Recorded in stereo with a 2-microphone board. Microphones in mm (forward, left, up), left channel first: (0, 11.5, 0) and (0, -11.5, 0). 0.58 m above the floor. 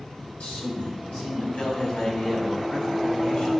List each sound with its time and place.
0.4 s a man speaking: 65° left (ahead or behind), 3.5 m; by 3.5 s 55° left (ahead or behind), 6.5 m